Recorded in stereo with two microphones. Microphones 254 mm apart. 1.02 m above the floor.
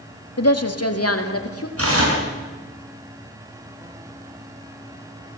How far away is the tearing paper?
About 6.5 m.